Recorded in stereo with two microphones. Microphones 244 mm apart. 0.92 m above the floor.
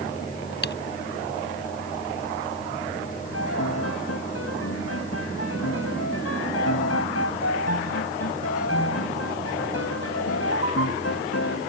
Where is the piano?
80° left.